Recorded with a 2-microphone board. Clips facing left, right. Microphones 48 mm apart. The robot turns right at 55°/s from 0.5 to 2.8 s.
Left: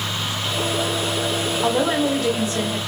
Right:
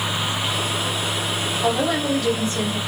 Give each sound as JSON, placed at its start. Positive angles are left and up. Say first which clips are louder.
{"t": 1.6, "sound": "a woman speaking", "louder": "left 1 dB", "azimuth_deg": 15, "distance_m": 1.1}